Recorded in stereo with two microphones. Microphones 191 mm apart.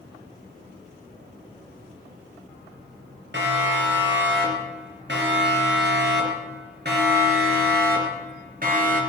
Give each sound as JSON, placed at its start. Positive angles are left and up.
{"t": 3.3, "sound": "a siren", "side_deg": -65, "distance_m": 5.0}